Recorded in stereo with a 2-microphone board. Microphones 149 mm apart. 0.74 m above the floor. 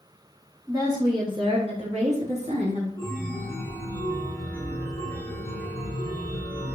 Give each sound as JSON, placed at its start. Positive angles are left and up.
{"t": 0.7, "sound": "a woman speaking", "side_deg": -20, "distance_m": 1.5}
{"t": 3.0, "sound": "a chime", "side_deg": 15, "distance_m": 0.8}